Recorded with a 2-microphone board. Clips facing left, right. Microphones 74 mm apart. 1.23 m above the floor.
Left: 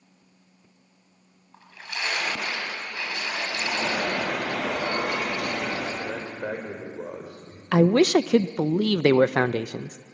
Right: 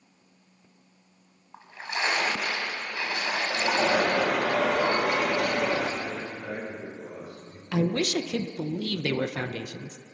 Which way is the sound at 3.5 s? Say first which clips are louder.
Right 5 dB; 75° right (ahead or behind).